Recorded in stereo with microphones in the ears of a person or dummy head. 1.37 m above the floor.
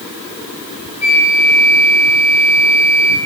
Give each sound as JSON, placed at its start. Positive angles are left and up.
{"t": 1.0, "sound": "a flute", "side_deg": 45, "distance_m": 3.0}